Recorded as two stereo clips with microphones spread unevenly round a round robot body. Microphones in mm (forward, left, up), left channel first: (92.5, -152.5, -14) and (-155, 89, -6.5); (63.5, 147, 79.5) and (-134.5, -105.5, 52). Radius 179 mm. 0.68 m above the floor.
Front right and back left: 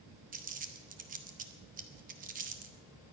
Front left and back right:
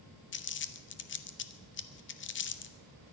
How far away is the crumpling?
About 1.0 m.